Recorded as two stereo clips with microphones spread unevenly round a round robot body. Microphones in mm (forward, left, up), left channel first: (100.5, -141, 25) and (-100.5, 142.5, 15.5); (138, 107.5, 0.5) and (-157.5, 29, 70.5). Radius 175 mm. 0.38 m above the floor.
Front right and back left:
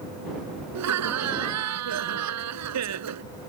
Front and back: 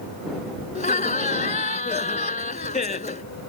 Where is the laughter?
80° left.